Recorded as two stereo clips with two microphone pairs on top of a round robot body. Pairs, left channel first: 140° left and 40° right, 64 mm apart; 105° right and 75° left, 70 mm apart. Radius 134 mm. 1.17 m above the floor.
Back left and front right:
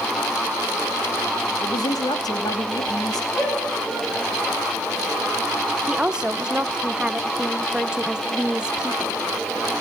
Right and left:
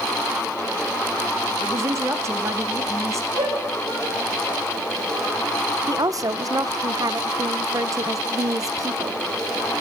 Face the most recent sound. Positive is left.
turn(degrees=35)